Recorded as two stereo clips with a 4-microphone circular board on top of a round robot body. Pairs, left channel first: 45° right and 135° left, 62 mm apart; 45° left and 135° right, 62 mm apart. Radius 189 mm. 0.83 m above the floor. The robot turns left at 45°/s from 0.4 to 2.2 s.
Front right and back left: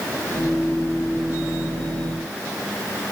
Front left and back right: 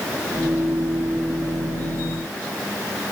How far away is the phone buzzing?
No phone buzzing in this recording.